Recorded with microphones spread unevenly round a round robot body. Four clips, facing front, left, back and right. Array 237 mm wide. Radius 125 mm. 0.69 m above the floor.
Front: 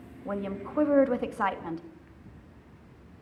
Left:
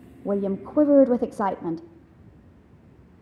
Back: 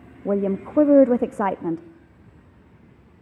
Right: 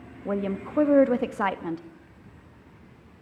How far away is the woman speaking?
About 0.7 m.